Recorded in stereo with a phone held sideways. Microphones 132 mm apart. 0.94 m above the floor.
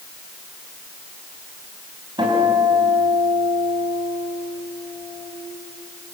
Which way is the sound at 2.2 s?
35° right (ahead or behind).